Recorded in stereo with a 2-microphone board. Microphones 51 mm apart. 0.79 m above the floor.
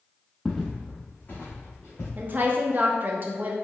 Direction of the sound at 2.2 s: 40° right (ahead or behind).